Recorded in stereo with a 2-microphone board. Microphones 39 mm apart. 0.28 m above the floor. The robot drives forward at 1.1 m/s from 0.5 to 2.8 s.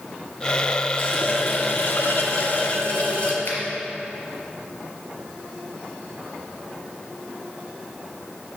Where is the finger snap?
80° left, 4 m.